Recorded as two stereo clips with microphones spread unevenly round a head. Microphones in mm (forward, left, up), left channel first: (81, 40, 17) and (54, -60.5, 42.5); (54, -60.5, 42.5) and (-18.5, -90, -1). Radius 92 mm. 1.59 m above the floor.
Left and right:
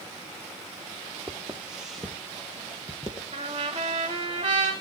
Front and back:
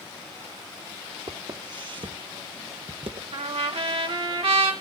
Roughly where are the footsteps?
Behind right.